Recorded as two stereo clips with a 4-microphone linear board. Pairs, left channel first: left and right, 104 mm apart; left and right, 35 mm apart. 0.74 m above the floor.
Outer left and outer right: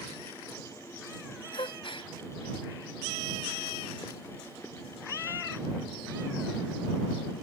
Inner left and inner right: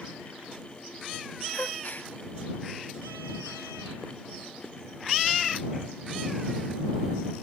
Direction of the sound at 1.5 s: 55° left (ahead or behind).